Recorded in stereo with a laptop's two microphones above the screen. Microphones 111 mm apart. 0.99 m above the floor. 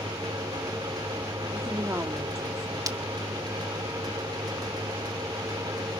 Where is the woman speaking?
25° right (ahead or behind), 2.5 m.